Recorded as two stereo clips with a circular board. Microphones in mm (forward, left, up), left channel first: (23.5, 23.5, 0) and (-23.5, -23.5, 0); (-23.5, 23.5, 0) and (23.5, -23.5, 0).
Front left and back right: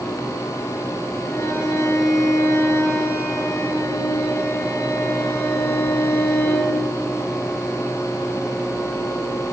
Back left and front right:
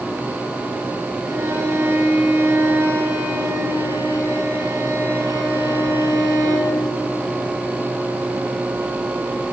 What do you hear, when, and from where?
1.2 s a violin: straight ahead, 6.5 m